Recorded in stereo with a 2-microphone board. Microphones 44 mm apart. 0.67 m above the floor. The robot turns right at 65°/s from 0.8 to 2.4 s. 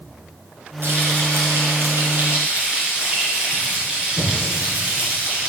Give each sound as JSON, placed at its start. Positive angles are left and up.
{"t": 0.8, "sound": "frying", "azimuth_deg": -125, "distance_m": 2.5}